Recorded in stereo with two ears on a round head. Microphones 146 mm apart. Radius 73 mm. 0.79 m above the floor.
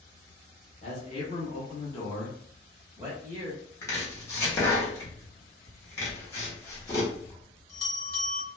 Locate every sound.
0.8 s a man speaking: 40° left (ahead or behind), 1.2 m; by 3.5 s 25° right (ahead or behind), 1.0 m
3.8 s chopping: 20° left (ahead or behind), 0.9 m
6.1 s a bell: 20° left (ahead or behind), 1.4 m